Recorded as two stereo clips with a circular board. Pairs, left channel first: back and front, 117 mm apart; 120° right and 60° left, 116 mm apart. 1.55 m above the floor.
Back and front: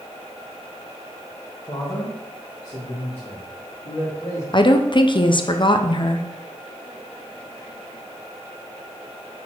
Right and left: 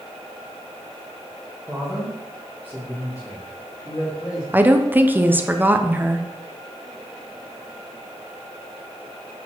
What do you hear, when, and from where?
1.7 s a man speaking: 145° left, 1.9 m; by 4.4 s 170° right, 3.5 m
4.5 s a woman speaking: 135° left, 0.7 m